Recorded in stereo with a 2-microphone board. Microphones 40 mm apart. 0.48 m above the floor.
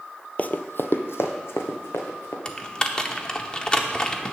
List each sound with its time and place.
0.4 s running footsteps: 35° left (ahead or behind), 0.5 m; by 2.4 s 75° left (ahead or behind), 2.5 m
2.5 s typing on a keyboard: 20° left (ahead or behind), 0.7 m